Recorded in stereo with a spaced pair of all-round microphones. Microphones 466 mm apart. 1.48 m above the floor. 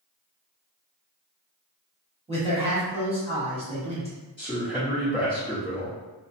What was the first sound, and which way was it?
A man speaking, 10° right (ahead or behind).